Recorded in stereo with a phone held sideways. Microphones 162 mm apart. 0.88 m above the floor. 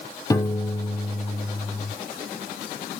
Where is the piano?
20° left (ahead or behind), 0.6 m.